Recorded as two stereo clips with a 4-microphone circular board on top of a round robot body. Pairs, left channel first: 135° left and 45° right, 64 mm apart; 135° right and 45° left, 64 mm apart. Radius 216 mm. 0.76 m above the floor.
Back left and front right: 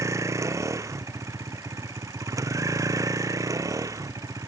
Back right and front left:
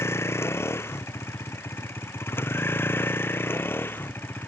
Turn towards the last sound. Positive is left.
turn(degrees=-80)